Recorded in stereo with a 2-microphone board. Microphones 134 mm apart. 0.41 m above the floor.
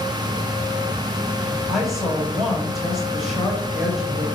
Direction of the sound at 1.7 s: Centre (ahead or behind).